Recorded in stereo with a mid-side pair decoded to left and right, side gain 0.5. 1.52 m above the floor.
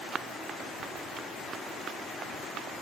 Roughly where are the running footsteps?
Ahead right.